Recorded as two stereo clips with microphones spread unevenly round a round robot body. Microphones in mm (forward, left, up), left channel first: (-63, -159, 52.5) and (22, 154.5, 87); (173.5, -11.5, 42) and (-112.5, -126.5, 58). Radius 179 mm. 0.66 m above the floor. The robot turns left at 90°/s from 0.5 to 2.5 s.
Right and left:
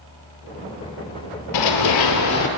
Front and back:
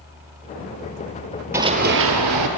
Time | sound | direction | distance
1.5 | running footsteps | 80° right | 1.1 m